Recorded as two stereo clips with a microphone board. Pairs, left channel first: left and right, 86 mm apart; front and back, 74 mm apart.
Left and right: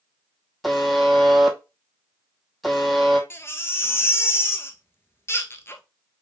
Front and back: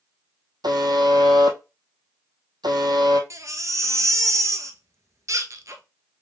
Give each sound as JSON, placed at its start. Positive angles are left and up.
{"t": 0.6, "sound": "a buzzer", "azimuth_deg": 180, "distance_m": 0.9}
{"t": 3.3, "sound": "a baby crying", "azimuth_deg": 145, "distance_m": 0.6}